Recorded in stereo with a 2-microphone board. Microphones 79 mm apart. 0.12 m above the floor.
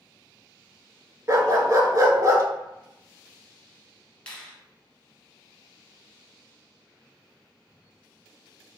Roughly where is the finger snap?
Centre.